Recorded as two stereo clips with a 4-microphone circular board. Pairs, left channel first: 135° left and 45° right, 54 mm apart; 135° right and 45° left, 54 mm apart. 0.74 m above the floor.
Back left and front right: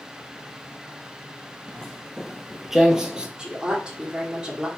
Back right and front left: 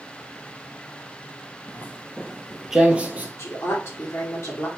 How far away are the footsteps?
About 0.9 m.